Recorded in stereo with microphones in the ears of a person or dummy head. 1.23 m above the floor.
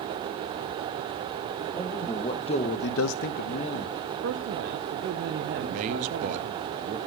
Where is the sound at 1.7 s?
20° left (ahead or behind), 1.8 m; by 4.0 s 15° left (ahead or behind), 1.5 m.